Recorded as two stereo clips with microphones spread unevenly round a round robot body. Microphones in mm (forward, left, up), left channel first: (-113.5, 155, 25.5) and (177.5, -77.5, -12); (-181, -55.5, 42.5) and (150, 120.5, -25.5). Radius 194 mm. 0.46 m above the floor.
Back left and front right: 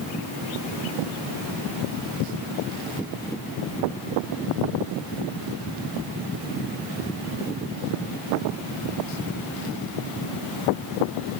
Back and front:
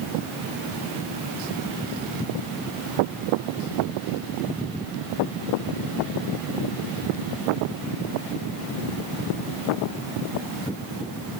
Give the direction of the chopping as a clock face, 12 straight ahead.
No chopping in this recording.